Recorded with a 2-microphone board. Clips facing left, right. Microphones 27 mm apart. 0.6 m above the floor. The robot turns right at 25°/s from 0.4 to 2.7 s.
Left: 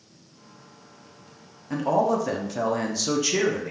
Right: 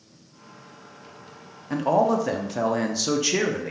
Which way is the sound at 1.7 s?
15° right (ahead or behind).